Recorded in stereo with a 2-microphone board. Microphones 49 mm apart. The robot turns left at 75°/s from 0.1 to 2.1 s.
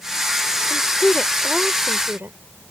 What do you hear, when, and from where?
0.7 s a woman speaking: 55° left; by 2.4 s 50° right